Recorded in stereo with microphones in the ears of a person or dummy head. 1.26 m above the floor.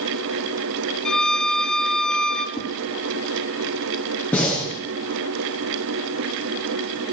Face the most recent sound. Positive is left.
turn(degrees=10)  # may be behind; listen again after turning